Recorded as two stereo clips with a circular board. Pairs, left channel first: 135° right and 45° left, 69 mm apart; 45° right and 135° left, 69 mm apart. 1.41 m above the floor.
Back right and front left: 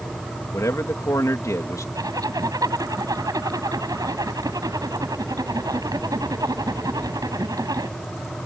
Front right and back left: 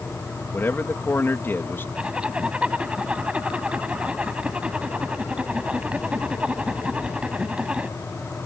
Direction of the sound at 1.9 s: 60° left.